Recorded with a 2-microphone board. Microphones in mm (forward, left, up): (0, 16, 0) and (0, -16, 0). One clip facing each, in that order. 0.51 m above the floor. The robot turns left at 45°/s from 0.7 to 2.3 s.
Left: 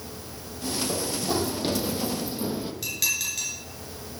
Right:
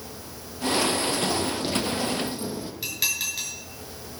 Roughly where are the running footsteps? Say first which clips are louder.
Right 3 dB; left.